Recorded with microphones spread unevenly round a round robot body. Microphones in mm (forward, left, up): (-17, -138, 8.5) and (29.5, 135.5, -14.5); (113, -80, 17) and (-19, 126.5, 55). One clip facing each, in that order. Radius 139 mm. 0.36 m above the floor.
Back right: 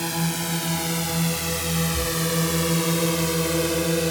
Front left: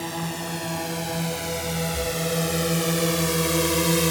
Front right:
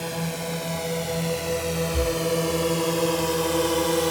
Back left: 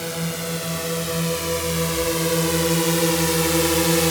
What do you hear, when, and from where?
0.0 s a drone: 155° right; by 4.1 s 135° left
1.9 s breathing: 30° right